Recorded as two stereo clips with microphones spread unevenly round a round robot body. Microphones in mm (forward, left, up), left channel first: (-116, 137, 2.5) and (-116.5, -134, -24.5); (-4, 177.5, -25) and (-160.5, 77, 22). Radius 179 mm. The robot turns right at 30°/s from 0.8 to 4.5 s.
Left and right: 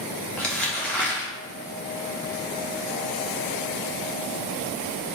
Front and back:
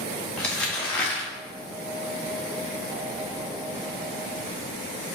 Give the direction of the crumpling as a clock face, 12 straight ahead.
12 o'clock.